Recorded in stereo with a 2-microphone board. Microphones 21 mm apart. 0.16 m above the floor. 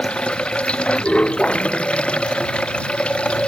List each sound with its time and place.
0.0 s running water: 65° left (ahead or behind)